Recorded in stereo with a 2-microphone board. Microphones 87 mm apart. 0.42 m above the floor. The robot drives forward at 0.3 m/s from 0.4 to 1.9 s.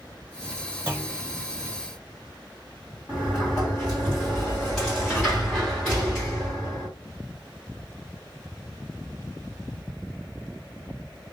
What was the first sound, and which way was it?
A clunk, 25° right (ahead or behind).